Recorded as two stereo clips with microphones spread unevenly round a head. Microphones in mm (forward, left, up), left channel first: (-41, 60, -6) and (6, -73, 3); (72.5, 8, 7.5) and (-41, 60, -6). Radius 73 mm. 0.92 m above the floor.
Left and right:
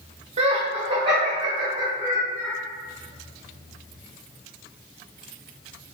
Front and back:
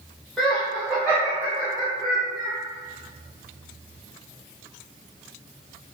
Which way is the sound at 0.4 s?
110° right.